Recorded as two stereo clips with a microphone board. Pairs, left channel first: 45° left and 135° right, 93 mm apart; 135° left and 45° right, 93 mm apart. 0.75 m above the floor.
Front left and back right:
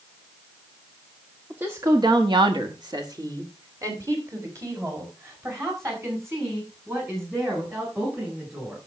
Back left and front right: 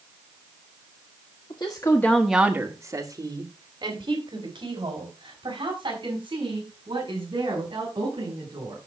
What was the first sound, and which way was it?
A woman speaking, 155° left.